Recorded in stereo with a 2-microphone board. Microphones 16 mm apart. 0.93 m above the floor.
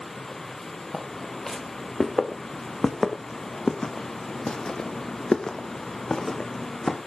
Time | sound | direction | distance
0.9 | footsteps | 25° left (ahead or behind) | 4 m